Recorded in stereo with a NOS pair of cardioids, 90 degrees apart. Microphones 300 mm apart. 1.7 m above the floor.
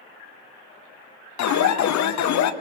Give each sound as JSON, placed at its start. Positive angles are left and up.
{"t": 1.4, "sound": "an alarm", "azimuth_deg": 70, "distance_m": 1.1}